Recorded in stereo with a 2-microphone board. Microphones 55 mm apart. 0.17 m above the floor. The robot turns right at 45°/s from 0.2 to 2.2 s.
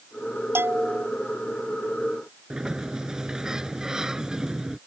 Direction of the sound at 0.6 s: 50° right (ahead or behind).